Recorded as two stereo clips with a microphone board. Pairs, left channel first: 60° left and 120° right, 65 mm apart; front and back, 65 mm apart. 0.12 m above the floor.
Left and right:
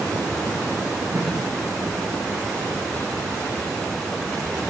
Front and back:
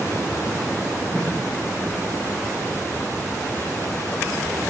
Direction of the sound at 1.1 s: 75° right.